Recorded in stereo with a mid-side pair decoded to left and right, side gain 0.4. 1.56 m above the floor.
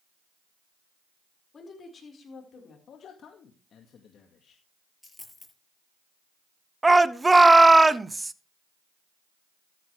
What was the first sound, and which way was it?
A woman speaking, 45° left.